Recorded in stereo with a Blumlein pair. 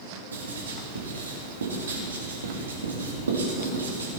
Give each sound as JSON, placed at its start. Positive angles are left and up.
{"t": 0.3, "sound": "writing", "azimuth_deg": -70, "distance_m": 2.5}